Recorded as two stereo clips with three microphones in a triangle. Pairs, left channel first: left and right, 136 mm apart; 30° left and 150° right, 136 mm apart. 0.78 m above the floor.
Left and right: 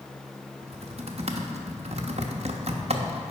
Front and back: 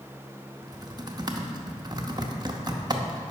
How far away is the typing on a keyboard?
About 0.7 m.